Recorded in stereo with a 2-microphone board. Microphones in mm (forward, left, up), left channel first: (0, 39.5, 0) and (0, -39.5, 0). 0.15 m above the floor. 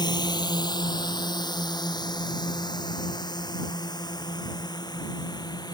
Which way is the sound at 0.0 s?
60° left (ahead or behind).